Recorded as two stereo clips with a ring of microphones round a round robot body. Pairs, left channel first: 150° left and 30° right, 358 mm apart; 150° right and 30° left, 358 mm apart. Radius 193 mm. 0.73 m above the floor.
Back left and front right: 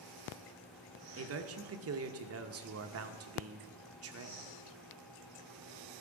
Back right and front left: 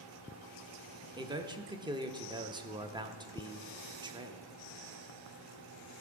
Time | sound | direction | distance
1.2 | a man speaking | 40° right | 0.9 m